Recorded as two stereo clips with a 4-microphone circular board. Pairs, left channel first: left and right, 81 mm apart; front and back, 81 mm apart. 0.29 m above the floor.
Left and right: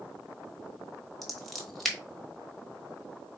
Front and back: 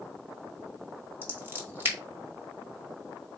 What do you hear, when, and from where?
1.2 s scissors: 175° left, 1.5 m